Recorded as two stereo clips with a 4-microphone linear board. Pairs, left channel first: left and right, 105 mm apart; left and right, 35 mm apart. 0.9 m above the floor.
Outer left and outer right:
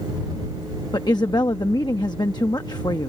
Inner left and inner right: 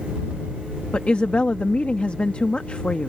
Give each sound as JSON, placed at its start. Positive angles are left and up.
{"t": 0.9, "sound": "a woman speaking", "side_deg": 40}